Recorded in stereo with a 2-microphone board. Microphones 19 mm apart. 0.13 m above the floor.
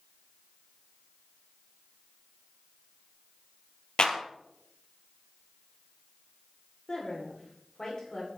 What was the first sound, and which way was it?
A clap, 45° left (ahead or behind).